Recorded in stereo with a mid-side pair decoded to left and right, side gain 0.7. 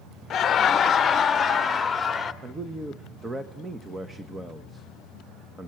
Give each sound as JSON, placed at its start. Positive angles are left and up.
{"t": 0.3, "sound": "laughter", "azimuth_deg": 40, "distance_m": 1.0}
{"t": 2.4, "sound": "a man speaking", "azimuth_deg": -15, "distance_m": 1.5}